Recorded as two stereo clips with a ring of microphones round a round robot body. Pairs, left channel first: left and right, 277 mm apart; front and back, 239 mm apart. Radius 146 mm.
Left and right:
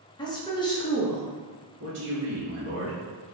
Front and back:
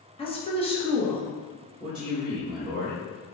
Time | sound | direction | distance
0.2 | a woman speaking | 35° left | 1.1 m
1.8 | a man speaking | 95° right | 1.4 m